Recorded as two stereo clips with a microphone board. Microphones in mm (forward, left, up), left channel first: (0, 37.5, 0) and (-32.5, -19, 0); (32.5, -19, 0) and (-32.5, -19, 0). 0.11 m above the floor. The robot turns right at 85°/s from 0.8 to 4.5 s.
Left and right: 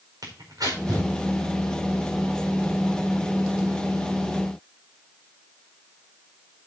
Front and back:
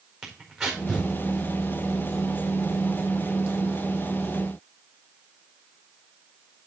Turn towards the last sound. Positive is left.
turn(degrees=-145)